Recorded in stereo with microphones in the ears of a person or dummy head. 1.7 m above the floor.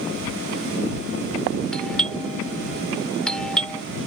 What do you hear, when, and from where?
1.7 s a doorbell: centre (ahead or behind)